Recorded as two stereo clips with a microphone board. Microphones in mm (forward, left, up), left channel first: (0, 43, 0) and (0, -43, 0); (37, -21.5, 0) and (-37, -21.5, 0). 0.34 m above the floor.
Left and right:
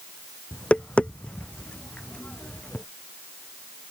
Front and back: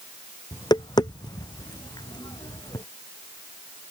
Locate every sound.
0.5 s tapping: 15° left